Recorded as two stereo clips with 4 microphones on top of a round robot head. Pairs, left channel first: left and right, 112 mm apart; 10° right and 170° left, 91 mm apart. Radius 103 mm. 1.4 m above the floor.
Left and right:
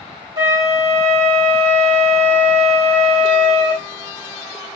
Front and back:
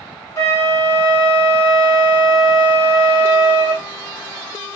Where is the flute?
50° right, 0.9 m.